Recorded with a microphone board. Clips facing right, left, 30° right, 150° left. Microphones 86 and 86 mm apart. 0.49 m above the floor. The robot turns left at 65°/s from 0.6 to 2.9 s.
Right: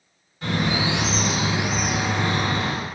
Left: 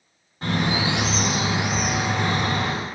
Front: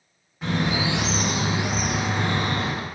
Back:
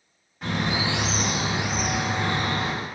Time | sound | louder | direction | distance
0.4 | a bird | even, front 2 dB | 60° left | 1.6 m